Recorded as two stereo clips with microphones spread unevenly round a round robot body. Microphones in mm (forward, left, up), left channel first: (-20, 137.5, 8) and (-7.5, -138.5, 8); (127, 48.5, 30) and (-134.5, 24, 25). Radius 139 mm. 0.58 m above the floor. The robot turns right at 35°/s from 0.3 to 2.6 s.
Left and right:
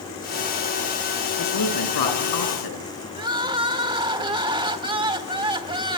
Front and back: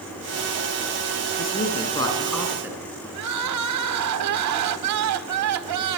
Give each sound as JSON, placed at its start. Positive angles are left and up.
{"t": 1.4, "sound": "a woman speaking", "azimuth_deg": 60, "distance_m": 7.0}
{"t": 3.1, "sound": "crying", "azimuth_deg": -160, "distance_m": 1.3}